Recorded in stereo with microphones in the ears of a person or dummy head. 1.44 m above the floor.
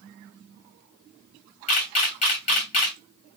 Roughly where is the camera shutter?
Left.